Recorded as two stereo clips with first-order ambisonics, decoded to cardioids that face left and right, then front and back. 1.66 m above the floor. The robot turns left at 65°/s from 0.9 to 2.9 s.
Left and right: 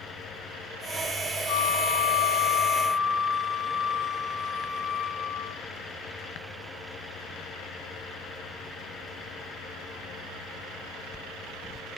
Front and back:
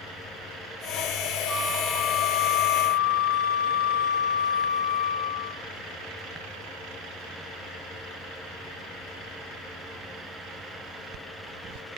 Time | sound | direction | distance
1.5 | a flute | 85° left | 5 m